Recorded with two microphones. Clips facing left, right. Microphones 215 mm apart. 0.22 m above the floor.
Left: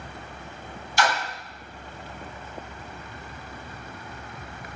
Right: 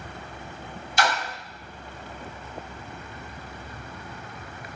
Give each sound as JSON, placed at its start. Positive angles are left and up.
{"t": 1.0, "sound": "a splash", "side_deg": -25, "distance_m": 1.7}